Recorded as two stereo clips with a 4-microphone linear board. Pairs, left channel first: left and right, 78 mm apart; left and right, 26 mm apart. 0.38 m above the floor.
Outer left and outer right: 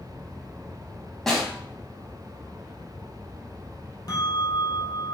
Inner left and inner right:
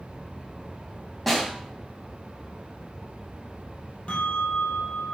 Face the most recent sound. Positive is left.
turn(degrees=55)  # may be behind; listen again after turning